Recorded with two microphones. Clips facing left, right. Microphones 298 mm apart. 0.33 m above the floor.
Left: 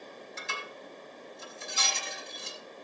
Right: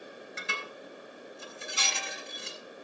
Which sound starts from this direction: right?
Dishes clattering, at 0.4 s.